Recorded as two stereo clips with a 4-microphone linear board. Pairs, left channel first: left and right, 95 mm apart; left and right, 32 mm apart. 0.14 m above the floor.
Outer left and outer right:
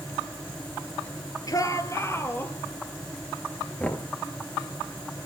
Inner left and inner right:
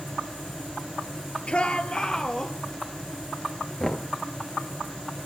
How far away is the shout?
About 2.5 m.